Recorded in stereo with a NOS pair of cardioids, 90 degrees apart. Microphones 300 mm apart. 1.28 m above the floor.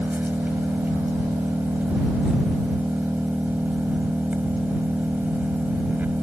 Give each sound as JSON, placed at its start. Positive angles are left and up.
{"t": 0.0, "sound": "an engine running", "azimuth_deg": -5}